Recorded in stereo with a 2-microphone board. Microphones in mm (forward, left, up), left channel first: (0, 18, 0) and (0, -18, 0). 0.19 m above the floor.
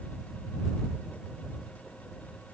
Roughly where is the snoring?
I don't hear snoring.